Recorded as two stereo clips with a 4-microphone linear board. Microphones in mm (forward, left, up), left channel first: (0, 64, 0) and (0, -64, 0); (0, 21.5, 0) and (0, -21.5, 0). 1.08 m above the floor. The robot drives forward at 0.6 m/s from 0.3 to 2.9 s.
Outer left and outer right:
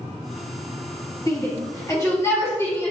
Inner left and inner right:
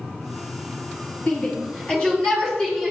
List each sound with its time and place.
1.3 s a shout: 30° left (ahead or behind), 2.0 m; by 2.9 s 20° left (ahead or behind), 3 m